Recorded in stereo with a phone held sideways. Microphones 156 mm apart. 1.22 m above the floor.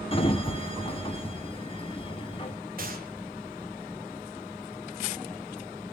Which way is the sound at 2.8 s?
65° right (ahead or behind).